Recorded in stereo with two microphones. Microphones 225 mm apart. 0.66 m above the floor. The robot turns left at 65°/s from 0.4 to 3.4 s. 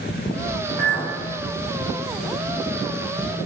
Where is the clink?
35° right (ahead or behind), 1.3 m; by 1.2 s 10° right (ahead or behind), 1.3 m.